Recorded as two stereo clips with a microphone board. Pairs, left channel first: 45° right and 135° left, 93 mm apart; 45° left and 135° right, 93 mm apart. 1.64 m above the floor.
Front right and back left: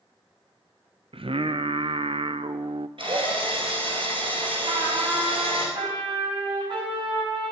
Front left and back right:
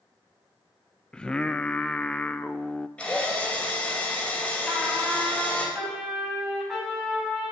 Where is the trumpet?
140° left, 6 m.